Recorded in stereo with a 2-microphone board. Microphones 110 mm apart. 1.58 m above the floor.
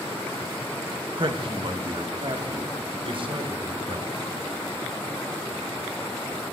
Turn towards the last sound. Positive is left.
turn(degrees=-55)  # may be behind; listen again after turning